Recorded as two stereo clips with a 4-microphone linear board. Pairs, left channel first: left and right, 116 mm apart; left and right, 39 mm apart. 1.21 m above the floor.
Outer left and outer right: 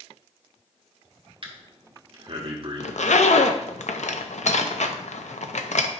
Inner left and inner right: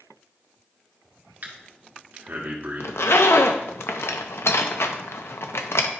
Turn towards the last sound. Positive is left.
turn(degrees=85)